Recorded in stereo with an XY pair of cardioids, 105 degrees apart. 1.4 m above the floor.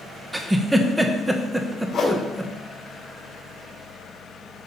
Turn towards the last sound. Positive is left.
turn(degrees=40)